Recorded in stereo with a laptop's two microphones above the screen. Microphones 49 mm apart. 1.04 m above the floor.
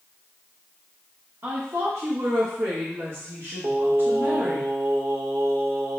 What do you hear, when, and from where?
1.4 s a woman speaking: 65° right (ahead or behind), 1.6 m; by 4.6 s 40° right (ahead or behind), 1.8 m
3.6 s singing: 65° right (ahead or behind), 0.7 m